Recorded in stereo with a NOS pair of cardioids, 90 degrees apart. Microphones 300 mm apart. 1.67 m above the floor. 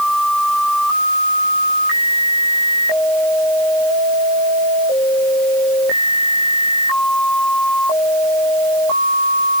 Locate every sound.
Only background noise.